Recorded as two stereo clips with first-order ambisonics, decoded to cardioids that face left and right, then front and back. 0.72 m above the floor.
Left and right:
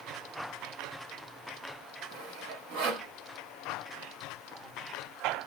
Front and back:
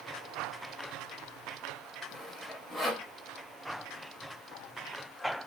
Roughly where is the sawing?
Right.